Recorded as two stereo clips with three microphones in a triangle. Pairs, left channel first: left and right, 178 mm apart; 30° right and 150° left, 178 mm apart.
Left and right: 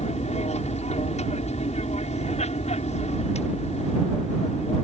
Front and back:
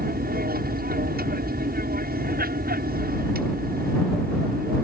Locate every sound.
0.0 s an aircraft: 135° left